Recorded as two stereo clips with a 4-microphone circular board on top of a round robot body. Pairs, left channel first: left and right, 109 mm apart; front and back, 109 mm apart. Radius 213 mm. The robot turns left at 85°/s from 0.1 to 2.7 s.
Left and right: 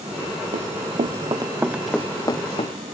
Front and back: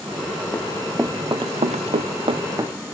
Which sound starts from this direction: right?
Running footsteps, at 0.5 s.